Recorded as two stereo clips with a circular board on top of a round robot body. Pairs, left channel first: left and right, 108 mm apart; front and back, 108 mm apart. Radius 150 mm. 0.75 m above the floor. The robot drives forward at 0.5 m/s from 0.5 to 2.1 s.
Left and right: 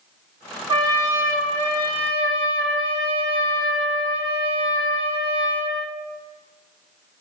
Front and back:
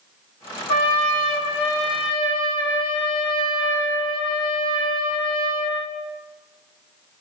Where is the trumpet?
40° right, 3.5 m; by 6.0 s 50° right, 3 m.